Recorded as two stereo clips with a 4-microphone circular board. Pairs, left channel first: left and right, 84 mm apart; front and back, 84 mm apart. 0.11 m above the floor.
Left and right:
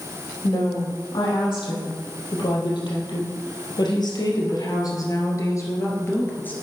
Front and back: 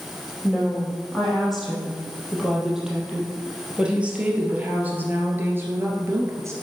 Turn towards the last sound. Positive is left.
turn(degrees=150)